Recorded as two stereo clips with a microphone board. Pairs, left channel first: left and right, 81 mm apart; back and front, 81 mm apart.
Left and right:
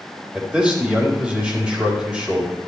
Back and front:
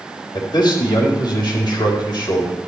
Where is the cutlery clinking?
No cutlery clinking in this recording.